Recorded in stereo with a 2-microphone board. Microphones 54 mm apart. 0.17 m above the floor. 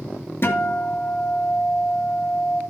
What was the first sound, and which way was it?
A guitar, 50° left (ahead or behind).